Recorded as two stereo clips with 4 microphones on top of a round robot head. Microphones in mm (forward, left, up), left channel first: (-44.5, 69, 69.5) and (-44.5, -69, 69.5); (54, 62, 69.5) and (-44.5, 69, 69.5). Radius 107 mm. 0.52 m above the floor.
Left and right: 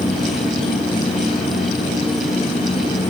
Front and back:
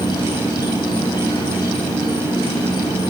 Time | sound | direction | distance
0.0 | an insect | 40° left | 4.5 m